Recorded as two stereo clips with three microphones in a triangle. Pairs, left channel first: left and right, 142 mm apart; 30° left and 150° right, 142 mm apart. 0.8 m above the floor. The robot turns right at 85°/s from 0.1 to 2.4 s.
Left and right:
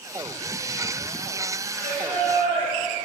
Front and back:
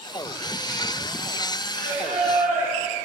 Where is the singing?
165° left, 5 m; by 3.0 s 135° right, 5 m.